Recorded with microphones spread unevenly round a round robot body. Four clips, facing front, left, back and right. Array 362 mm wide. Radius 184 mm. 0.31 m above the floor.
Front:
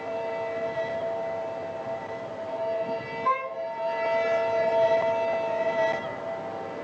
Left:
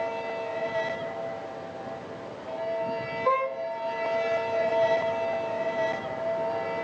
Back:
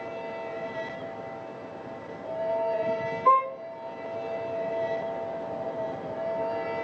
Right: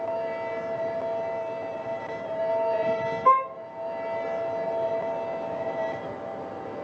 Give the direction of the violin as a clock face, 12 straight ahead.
4 o'clock.